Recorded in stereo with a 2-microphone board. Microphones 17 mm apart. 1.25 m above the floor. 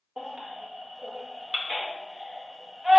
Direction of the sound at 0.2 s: 45° right (ahead or behind).